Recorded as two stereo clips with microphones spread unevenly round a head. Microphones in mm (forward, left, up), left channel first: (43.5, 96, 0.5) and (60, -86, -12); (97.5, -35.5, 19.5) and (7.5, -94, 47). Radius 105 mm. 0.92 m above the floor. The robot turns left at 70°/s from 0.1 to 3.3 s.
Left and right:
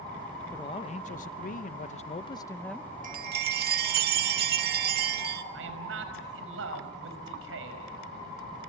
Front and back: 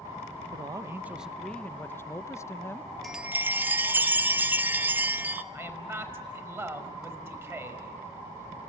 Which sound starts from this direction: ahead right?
A chime, at 3.0 s.